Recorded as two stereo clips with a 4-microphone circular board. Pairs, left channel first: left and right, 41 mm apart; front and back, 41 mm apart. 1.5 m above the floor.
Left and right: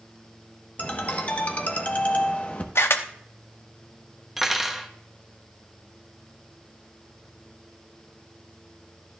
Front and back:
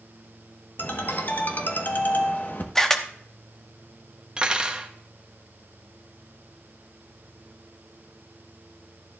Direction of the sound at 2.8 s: 80° left.